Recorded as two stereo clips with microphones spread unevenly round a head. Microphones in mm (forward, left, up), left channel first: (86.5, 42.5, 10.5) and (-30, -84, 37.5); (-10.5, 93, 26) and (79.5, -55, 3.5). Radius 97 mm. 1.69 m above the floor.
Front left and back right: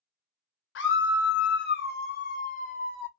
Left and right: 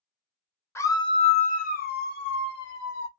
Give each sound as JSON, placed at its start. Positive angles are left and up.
{"t": 0.8, "sound": "a scream", "azimuth_deg": 45, "distance_m": 1.0}